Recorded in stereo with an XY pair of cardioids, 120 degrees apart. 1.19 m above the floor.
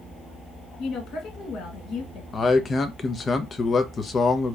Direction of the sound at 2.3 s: 30° left.